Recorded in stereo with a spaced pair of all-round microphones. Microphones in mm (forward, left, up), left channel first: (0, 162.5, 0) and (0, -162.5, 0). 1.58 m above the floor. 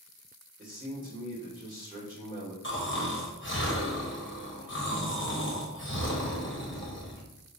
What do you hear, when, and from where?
0.6 s a man speaking: 25° right (ahead or behind), 2 m
2.6 s snoring: 35° left (ahead or behind), 1.3 m